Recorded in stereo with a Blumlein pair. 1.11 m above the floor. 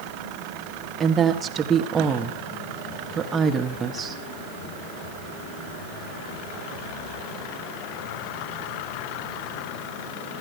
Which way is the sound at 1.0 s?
20° right.